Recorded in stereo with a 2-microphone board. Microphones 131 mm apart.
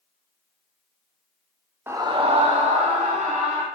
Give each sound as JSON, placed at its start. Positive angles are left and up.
{"t": 1.9, "sound": "a scream", "side_deg": -15, "distance_m": 0.8}